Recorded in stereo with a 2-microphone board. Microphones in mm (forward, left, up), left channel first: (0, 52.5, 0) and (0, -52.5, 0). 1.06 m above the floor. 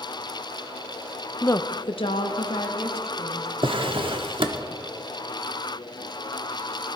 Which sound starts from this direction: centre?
A woman speaking, at 1.4 s.